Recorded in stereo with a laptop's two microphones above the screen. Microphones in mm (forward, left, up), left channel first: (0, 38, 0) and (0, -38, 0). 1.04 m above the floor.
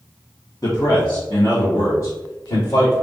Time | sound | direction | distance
0.6 | a man speaking | 50° left (ahead or behind) | 0.8 m